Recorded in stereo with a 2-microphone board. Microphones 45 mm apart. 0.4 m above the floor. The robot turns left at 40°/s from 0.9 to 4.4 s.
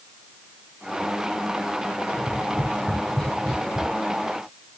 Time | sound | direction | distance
2.1 | tapping | 55° left (ahead or behind) | 5.5 m